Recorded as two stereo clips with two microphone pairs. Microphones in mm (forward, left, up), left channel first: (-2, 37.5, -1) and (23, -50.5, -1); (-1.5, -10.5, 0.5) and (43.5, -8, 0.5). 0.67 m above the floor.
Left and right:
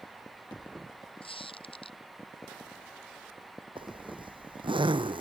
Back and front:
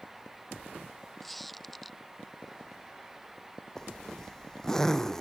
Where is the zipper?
100° right.